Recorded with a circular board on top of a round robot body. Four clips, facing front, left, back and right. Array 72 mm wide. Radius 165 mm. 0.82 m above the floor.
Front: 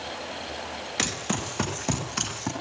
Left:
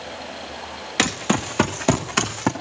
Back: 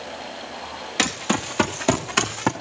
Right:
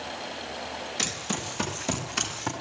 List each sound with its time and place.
1.0 s running footsteps: 110° left, 3.5 m; by 2.5 s 140° left, 2 m